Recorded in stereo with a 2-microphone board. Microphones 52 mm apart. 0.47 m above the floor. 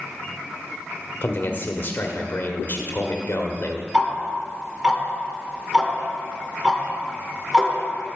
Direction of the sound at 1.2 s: 50° left (ahead or behind).